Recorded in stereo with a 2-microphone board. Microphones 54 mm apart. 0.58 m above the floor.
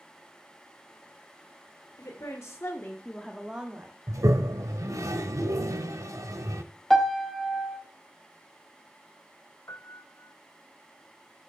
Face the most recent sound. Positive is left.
turn(degrees=70)  # may be behind; listen again after turning